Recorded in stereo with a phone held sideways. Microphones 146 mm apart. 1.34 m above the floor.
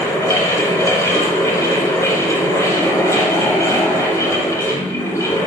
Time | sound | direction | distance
0.0 | a fan | 20° left (ahead or behind) | 0.9 m